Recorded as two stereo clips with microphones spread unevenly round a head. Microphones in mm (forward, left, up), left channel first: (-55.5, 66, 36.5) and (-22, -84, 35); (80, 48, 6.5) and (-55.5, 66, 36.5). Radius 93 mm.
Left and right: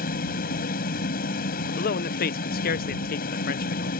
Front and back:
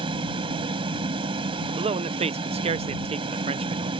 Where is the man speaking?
130° left.